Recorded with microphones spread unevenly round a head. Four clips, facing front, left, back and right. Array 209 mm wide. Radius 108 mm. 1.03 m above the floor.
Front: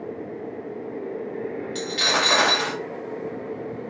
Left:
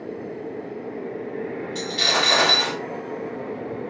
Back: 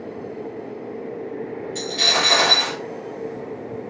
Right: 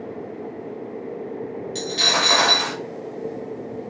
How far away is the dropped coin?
About 0.9 m.